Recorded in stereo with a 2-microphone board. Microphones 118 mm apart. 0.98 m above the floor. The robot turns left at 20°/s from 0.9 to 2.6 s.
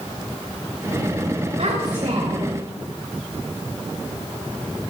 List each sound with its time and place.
1.6 s a child speaking: 85° right, 3 m; by 2.6 s 70° right (ahead or behind), 3 m